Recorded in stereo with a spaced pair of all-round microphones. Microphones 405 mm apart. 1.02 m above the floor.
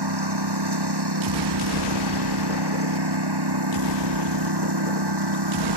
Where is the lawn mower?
75° right (ahead or behind).